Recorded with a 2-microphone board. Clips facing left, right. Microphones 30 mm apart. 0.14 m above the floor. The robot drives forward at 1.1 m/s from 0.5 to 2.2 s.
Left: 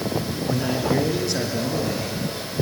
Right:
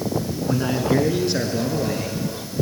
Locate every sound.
0.5 s a man speaking: 15° right (ahead or behind), 1.7 m; by 2.2 s 10° right (ahead or behind), 3 m